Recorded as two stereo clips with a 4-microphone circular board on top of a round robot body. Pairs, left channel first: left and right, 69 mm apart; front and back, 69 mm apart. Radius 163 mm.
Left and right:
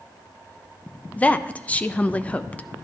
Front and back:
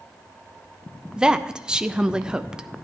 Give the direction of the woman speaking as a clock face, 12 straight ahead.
8 o'clock.